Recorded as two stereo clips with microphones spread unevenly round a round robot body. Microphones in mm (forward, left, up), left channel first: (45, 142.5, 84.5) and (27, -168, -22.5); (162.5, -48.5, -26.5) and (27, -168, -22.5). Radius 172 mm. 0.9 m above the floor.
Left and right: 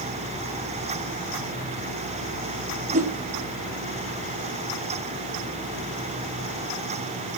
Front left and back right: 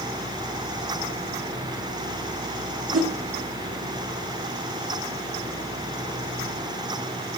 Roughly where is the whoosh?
Behind.